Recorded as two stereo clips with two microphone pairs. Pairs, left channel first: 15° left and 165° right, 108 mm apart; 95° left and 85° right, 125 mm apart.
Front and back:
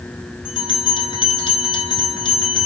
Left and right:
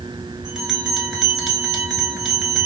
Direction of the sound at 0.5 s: Straight ahead.